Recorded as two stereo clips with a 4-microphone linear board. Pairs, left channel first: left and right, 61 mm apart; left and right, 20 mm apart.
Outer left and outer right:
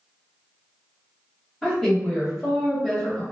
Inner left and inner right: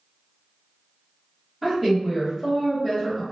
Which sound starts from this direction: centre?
A woman speaking, at 1.6 s.